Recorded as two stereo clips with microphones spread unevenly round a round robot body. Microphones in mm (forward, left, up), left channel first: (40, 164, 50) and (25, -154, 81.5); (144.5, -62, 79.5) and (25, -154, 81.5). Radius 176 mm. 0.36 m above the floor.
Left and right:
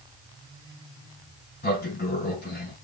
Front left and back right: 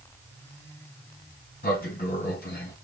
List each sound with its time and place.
1.6 s a sliding door: 30° left, 4 m